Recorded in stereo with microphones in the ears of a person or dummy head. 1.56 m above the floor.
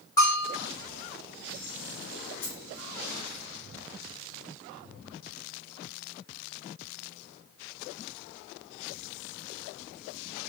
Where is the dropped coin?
35° left (ahead or behind), 2.5 m.